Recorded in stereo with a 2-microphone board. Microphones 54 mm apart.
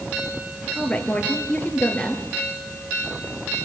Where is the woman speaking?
30° left (ahead or behind), 2.5 m.